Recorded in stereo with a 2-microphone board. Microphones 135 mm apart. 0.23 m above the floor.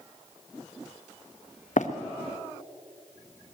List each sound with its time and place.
1.8 s running footsteps: 70° left (ahead or behind), 1.2 m